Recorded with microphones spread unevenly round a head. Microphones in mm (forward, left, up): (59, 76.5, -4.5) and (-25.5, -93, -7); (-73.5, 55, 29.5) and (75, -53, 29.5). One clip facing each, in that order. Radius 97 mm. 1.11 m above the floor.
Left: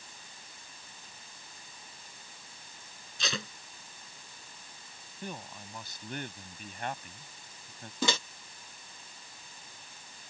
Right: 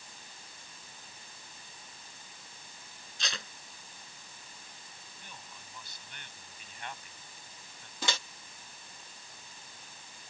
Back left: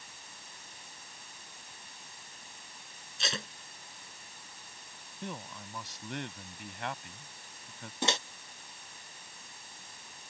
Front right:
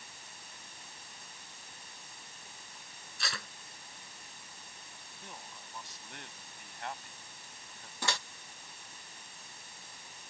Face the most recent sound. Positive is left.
turn(degrees=75)